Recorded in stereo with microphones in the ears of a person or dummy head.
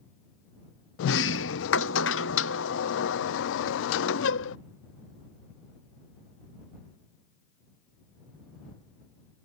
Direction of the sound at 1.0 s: 75° left (ahead or behind).